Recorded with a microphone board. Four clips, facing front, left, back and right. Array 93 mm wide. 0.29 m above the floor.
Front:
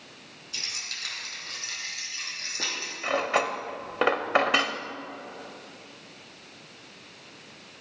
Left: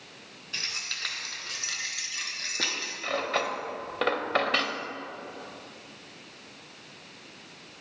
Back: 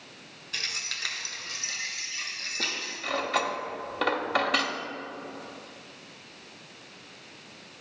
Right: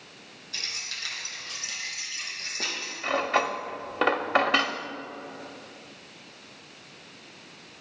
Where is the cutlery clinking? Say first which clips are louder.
Right 4 dB, front 3 dB; 35° right, 0.7 m.